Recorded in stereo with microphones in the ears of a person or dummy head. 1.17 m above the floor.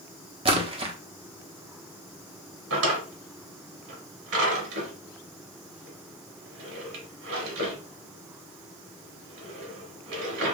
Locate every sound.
0.5 s a splash: 25° right (ahead or behind), 1.0 m
2.7 s a drawer: 80° right, 1.6 m